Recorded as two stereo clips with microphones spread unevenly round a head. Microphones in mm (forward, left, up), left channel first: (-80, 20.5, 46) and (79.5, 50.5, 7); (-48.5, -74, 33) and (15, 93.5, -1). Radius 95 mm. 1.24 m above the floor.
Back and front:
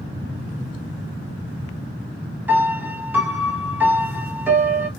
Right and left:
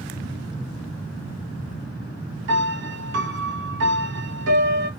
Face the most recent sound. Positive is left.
turn(degrees=90)